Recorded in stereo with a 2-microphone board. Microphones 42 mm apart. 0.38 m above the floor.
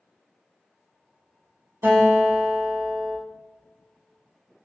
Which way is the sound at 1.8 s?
70° right (ahead or behind).